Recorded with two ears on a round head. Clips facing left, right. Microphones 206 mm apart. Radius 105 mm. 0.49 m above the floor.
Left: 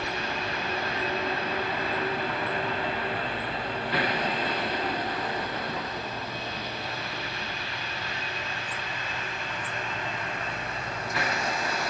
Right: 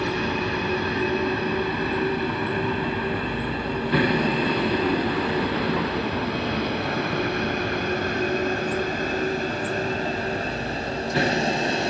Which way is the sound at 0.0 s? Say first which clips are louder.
Right 8 dB; 65° right (ahead or behind).